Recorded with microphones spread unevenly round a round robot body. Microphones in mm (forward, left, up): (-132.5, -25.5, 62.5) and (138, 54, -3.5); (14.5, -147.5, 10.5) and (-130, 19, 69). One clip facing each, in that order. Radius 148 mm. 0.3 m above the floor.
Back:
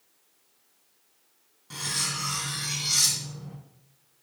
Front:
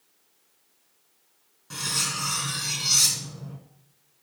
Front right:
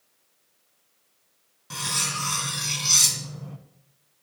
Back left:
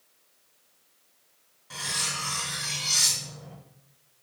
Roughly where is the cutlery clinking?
Ahead right.